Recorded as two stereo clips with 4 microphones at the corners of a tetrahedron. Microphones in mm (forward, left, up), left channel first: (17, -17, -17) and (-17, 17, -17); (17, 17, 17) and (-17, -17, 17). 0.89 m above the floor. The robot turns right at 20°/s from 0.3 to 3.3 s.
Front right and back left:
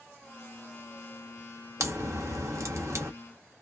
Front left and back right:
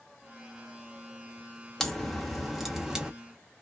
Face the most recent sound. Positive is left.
turn(degrees=150)